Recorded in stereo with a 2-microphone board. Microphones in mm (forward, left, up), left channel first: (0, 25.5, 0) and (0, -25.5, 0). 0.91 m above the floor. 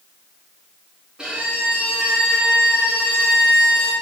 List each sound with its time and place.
1.2 s a violin: 15° right (ahead or behind), 0.8 m